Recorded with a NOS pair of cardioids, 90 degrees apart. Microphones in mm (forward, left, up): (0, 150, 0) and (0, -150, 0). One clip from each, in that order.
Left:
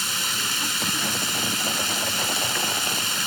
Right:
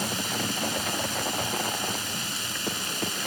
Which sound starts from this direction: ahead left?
Running water, at 0.0 s.